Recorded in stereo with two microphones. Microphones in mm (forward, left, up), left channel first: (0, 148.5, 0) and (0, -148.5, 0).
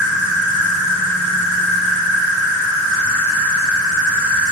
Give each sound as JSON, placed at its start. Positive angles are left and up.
{"t": 0.0, "sound": "an insect", "side_deg": -50, "distance_m": 0.9}